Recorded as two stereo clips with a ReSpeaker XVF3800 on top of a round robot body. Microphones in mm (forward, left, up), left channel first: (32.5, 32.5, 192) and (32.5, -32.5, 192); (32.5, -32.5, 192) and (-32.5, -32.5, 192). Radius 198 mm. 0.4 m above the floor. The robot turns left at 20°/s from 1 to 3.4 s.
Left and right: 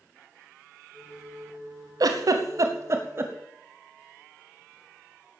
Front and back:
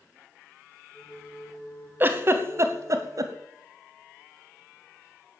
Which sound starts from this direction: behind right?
A giggle, at 2.0 s.